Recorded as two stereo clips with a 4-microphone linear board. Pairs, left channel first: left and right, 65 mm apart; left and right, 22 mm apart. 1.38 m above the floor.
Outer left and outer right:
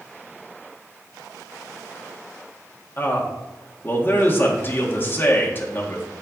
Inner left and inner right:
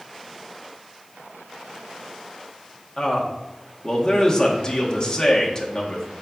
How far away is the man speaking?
About 1.8 m.